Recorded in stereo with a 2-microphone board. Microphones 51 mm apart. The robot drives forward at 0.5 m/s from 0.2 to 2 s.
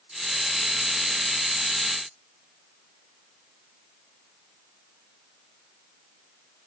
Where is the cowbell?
No cowbell in this recording.